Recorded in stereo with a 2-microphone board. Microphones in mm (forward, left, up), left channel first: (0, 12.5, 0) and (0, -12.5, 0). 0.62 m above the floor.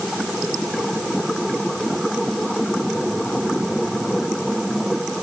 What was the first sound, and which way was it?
Only background noise.